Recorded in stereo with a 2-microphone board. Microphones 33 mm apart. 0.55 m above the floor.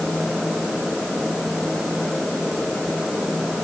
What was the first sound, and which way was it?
Only background noise.